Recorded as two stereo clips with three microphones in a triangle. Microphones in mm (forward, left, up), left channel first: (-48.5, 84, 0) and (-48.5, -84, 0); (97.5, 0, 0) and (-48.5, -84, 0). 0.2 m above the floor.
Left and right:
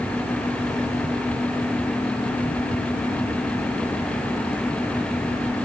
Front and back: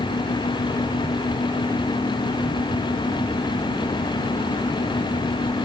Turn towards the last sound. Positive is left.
No sound to turn to.